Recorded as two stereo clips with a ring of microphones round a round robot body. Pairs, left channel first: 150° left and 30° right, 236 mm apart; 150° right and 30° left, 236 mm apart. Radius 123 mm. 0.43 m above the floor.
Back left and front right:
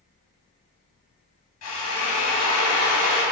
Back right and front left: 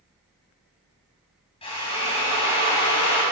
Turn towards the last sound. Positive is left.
turn(degrees=145)